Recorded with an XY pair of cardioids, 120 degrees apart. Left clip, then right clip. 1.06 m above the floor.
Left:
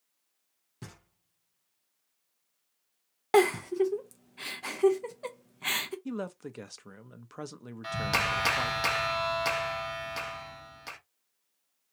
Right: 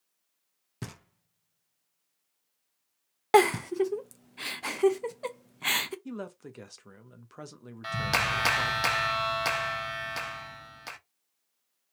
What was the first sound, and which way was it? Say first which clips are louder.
Knocking: right 5 dB; 50° right.